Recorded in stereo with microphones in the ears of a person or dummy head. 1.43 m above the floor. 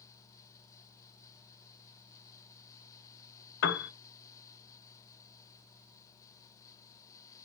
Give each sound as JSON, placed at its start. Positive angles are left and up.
{"t": 3.6, "sound": "a piano", "side_deg": 65, "distance_m": 0.7}